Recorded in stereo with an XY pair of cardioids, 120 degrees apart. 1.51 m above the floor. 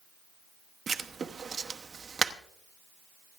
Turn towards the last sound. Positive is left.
turn(degrees=-30)